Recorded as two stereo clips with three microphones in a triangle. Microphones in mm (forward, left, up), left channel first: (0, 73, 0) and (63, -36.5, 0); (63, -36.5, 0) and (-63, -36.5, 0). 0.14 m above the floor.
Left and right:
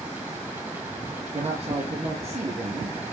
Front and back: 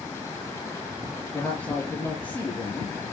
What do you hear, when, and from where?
1.3 s a man speaking: 75° right, 2.5 m